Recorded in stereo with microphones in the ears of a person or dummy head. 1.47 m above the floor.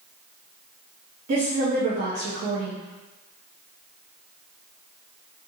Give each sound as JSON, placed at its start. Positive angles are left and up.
{"t": 1.3, "sound": "a woman speaking", "side_deg": -45, "distance_m": 0.6}